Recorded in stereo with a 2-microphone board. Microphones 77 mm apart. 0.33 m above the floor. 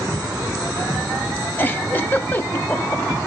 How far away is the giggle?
About 1.7 m.